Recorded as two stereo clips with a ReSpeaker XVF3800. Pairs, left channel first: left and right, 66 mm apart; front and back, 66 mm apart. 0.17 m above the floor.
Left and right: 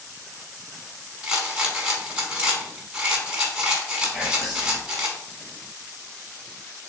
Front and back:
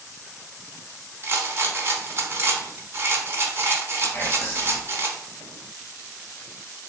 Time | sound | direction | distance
1.2 | a rattle | 160° right | 0.9 m
4.1 | whispering | 5° right | 1.1 m